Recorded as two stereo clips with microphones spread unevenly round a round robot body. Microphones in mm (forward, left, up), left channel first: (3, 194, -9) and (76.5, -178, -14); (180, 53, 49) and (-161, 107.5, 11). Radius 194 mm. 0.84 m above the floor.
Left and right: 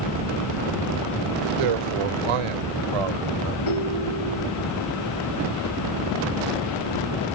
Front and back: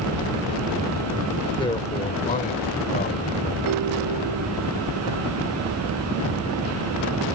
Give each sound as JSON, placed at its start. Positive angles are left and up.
{"t": 1.6, "sound": "a man speaking", "azimuth_deg": -90}
{"t": 3.7, "sound": "a ringtone", "azimuth_deg": 140}